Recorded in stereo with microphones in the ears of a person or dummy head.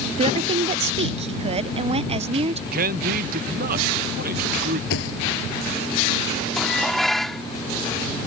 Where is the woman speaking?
30° right (ahead or behind).